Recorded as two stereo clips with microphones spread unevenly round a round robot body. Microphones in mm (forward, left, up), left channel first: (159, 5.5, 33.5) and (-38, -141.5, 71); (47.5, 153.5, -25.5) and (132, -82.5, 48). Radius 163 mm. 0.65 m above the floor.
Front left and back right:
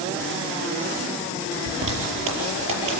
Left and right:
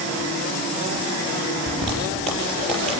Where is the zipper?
160° right, 5.5 m.